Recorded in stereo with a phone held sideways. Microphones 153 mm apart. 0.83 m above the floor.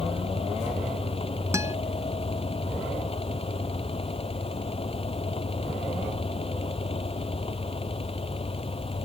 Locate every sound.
0.0 s a fan: 35° left (ahead or behind)
1.5 s a guitar: 20° right (ahead or behind)